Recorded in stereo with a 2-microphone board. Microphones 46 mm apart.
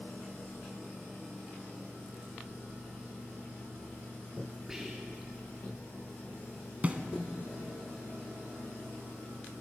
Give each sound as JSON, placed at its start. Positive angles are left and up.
{"t": 4.7, "sound": "whispering", "side_deg": -10, "distance_m": 2.0}
{"t": 6.8, "sound": "a snare drum", "side_deg": -30, "distance_m": 0.7}